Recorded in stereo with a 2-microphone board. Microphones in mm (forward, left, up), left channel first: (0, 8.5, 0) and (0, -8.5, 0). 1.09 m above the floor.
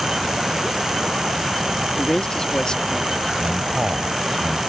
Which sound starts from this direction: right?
A man speaking, at 3.4 s.